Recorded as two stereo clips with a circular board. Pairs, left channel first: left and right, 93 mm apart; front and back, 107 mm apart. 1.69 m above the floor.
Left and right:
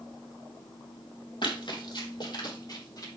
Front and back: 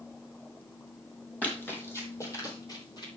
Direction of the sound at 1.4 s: 75° left.